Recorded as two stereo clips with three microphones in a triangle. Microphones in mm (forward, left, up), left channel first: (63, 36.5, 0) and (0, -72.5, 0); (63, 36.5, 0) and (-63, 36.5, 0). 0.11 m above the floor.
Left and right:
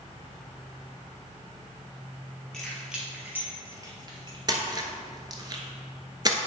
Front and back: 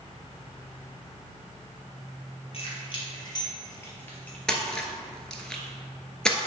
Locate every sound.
2.5 s keys jangling: 25° right, 1.9 m; by 4.4 s 80° right, 1.8 m
4.5 s a splash: 80° right, 0.9 m